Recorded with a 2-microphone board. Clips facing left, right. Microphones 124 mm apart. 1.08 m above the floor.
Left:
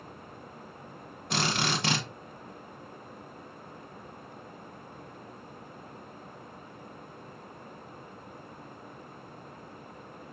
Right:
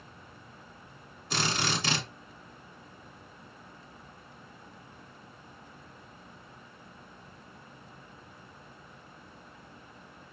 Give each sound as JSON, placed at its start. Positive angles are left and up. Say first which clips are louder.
{"t": 1.3, "sound": "a drill", "louder": "left 2 dB", "side_deg": 65, "distance_m": 1.4}